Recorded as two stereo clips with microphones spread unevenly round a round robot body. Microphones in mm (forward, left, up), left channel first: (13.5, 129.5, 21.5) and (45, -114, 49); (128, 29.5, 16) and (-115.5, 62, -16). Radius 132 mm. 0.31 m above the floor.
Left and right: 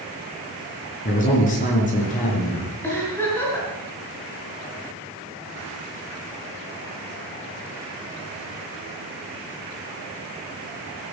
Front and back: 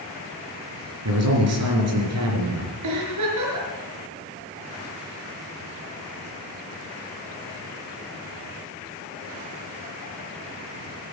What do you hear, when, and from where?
1.1 s a man speaking: 155° left, 4.5 m
2.8 s a giggle: straight behind, 4.5 m